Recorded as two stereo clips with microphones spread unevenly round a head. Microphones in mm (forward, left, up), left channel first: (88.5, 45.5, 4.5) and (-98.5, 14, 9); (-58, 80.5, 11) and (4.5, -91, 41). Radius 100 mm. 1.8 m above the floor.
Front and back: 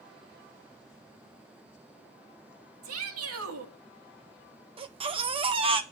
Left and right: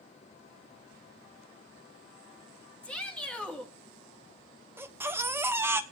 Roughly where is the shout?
Behind.